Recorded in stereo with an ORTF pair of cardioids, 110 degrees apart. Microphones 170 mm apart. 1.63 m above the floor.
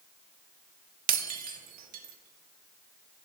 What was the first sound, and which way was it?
Breaking glass, 60° right.